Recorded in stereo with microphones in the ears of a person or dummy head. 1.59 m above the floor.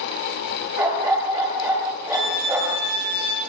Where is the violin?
20° right (ahead or behind), 7.5 m.